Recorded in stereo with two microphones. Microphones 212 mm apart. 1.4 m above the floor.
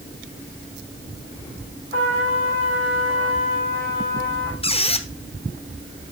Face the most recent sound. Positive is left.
turn(degrees=25)  # may be behind; listen again after turning